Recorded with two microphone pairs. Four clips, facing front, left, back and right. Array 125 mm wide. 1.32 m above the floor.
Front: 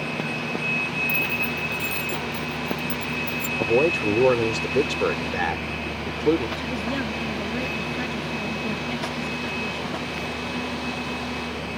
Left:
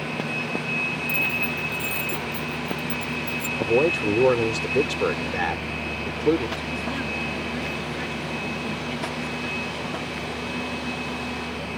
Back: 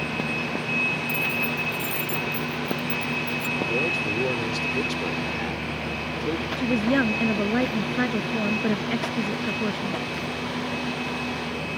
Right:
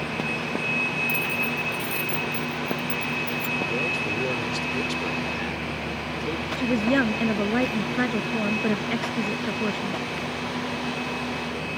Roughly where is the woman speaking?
Behind right.